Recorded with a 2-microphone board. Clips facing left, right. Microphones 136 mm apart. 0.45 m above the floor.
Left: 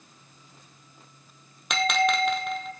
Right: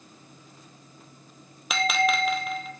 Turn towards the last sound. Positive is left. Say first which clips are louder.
# left 1 dB
turn(degrees=-5)  # may be behind; listen again after turning